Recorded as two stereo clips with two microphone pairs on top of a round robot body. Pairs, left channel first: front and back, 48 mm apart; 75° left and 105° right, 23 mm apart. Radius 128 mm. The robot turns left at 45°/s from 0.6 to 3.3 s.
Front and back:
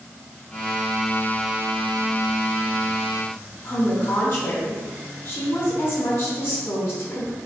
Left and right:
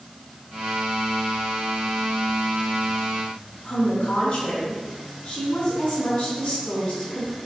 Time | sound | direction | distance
3.6 | a woman speaking | 40° left | 3.5 m